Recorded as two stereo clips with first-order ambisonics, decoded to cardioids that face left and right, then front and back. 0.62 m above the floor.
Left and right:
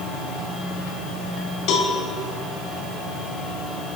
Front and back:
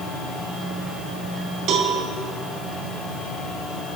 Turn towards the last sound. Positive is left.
turn(degrees=130)